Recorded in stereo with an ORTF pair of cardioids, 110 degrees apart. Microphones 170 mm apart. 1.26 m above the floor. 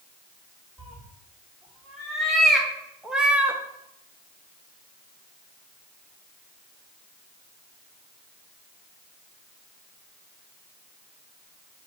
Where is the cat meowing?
Straight ahead, 2.0 m; by 3.6 s 20° right, 0.5 m.